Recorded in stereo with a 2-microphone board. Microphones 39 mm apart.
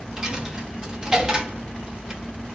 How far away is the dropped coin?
About 0.7 m.